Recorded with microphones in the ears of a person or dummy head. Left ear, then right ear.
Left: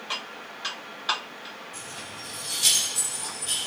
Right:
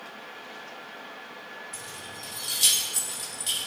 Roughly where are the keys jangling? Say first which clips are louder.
Left 1 dB; right.